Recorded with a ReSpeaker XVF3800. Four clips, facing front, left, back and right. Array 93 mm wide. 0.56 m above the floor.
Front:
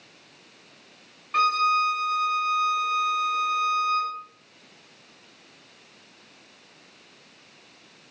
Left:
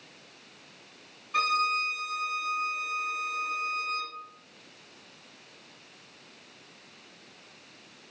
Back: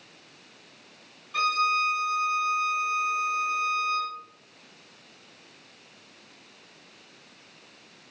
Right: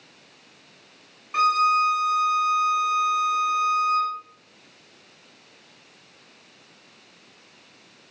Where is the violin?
30° right, 1.6 m.